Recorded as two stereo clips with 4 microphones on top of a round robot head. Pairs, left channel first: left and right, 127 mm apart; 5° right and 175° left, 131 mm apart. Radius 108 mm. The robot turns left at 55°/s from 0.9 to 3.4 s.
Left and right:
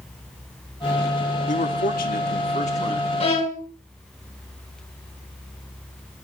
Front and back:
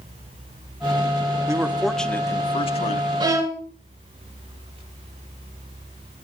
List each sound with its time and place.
1.5 s a man speaking: 110° left, 1.7 m; by 3.1 s 20° left, 1.7 m
3.2 s a violin: 125° left, 3 m; by 3.6 s 115° left, 3 m